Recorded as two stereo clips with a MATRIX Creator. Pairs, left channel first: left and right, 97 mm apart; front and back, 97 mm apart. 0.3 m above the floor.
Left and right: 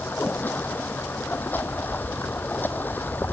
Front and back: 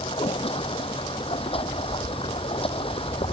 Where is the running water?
20° left.